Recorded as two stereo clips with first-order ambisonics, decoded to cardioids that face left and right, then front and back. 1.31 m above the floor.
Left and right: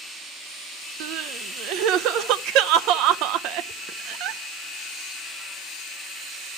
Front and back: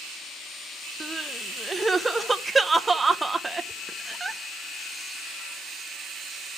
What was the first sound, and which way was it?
Crying, 100° right.